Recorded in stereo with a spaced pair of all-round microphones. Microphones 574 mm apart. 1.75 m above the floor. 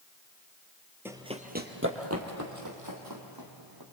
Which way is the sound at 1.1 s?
5° right (ahead or behind).